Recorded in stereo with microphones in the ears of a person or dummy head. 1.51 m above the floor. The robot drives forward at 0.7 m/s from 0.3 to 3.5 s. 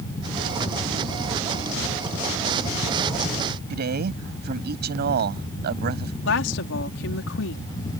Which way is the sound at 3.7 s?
60° right (ahead or behind).